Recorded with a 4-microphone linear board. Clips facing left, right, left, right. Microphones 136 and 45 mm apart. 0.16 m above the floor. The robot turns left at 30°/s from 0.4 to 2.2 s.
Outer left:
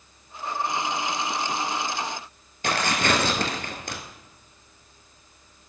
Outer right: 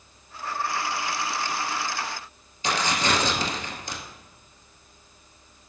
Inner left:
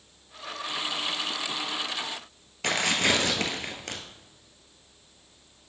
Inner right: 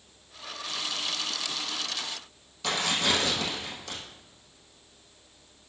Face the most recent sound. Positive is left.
turn(degrees=60)  # may be behind; listen again after turning